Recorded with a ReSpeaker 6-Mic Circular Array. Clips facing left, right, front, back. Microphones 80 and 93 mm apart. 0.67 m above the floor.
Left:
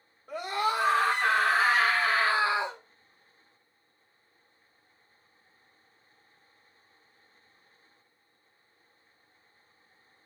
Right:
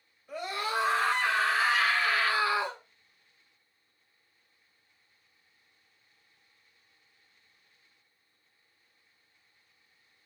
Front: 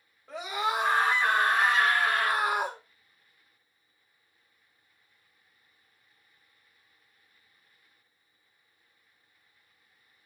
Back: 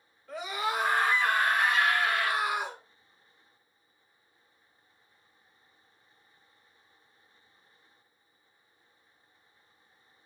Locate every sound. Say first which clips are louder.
0.3 s a scream: left 4 dB, front 2 dB; 65° left, 1.9 m; by 2.8 s 20° left, 0.9 m